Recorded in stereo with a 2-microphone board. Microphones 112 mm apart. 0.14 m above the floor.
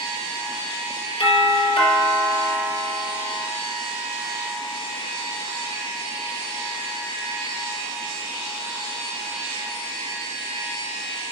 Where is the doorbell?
65° left (ahead or behind), 3.5 m.